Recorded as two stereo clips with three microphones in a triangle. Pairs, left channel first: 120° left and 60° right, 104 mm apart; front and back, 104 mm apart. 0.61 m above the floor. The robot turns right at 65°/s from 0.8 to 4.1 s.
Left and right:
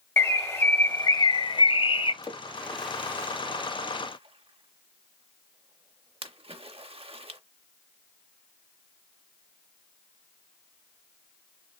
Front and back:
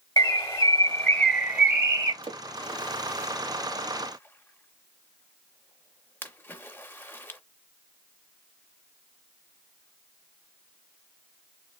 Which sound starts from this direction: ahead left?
A bird, at 0.2 s.